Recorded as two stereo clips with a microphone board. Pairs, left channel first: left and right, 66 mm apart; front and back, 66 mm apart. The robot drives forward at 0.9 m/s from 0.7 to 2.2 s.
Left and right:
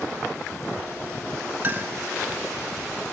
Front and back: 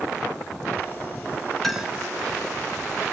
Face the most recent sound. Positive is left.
turn(degrees=-140)